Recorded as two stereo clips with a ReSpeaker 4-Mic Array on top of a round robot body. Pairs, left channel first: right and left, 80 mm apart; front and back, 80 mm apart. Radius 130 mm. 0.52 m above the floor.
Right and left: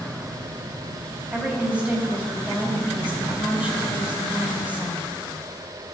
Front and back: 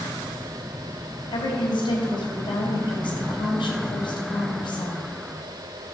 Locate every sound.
1.3 s a woman speaking: 15° left, 3.5 m